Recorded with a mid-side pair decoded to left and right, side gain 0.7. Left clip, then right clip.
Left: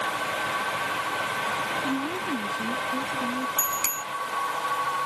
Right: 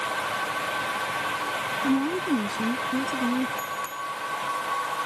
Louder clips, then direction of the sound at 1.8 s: Right 3 dB; 30° right.